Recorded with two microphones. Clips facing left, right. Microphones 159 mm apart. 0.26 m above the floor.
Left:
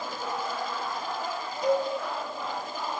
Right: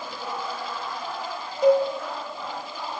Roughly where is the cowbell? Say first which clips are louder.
Right 7 dB; right.